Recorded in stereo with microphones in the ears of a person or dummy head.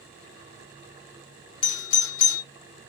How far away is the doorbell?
About 1.5 m.